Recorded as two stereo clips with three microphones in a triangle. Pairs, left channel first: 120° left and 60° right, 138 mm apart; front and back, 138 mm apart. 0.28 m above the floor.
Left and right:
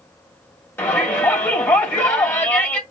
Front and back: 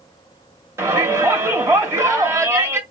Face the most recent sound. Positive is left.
turn(degrees=155)